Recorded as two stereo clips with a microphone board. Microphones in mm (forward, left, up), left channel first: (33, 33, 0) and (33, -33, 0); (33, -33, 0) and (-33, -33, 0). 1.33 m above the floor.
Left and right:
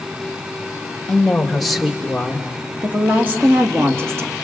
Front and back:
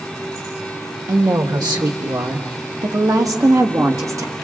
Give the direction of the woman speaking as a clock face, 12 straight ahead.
6 o'clock.